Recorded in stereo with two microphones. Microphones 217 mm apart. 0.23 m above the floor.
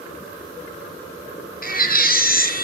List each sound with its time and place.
1.6 s a baby crying: 45° left (ahead or behind), 2 m